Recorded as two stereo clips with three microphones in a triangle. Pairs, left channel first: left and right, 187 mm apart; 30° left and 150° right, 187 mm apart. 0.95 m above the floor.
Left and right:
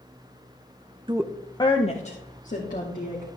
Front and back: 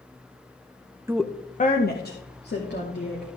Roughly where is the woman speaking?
Right.